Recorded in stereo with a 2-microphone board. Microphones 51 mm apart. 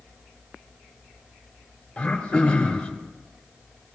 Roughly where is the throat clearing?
Left.